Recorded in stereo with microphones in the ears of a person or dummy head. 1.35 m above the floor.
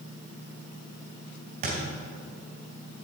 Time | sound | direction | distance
1.6 | a thud | 45° right (ahead or behind) | 2.5 m